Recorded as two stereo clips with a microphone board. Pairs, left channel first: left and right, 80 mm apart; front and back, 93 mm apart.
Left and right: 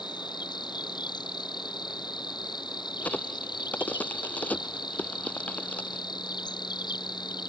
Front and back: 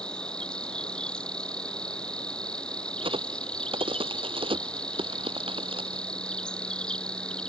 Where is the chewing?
No chewing in this recording.